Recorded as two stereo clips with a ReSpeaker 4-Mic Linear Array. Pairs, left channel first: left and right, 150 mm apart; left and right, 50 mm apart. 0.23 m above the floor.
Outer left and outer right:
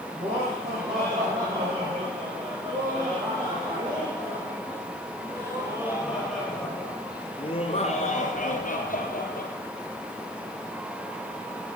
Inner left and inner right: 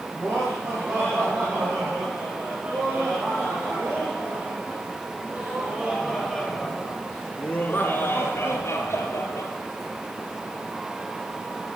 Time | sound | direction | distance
0.1 | laughter | 65° right (ahead or behind) | 9 m